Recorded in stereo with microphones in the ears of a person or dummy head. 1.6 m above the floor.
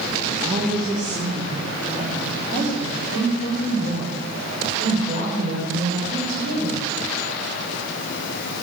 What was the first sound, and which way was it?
A woman speaking, 20° right (ahead or behind).